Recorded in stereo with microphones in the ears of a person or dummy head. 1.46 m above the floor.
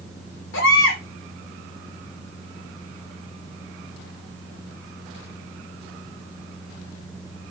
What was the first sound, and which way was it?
A baby crying, 65° left (ahead or behind).